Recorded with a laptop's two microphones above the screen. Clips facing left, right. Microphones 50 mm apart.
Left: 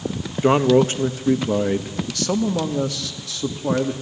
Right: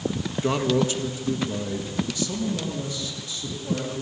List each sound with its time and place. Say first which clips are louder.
0.4 s a man speaking: left 8 dB; 30° left (ahead or behind), 1.4 m; by 3.9 s 75° left (ahead or behind), 2.5 m